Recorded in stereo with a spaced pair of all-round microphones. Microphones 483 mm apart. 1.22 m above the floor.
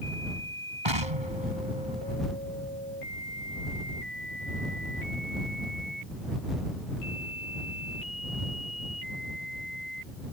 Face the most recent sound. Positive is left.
turn(degrees=-70)  # may be behind; listen again after turning